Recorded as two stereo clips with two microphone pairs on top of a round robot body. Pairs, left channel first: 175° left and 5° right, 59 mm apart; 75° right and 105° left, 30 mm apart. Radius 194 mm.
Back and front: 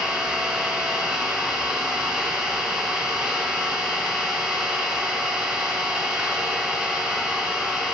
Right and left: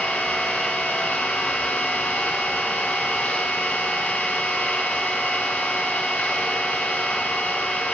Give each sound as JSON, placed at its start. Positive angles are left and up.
{"t": 0.0, "sound": "an engine running", "azimuth_deg": -80, "distance_m": 5.0}